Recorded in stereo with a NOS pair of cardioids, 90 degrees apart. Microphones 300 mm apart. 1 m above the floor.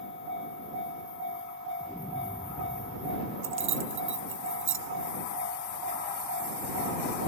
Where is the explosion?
5° left.